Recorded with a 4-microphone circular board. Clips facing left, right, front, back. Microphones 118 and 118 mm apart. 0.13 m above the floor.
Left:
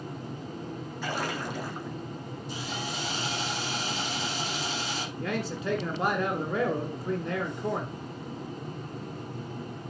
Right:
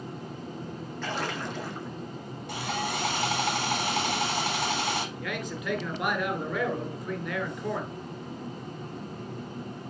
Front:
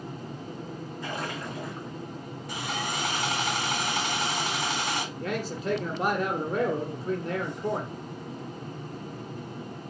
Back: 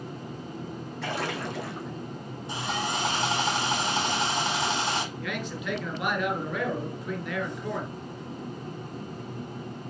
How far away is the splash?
About 2 m.